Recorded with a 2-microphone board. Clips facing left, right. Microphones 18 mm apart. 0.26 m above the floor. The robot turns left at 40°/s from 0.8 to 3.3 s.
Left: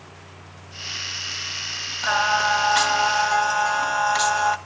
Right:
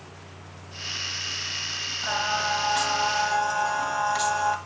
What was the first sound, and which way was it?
Singing, 90° left.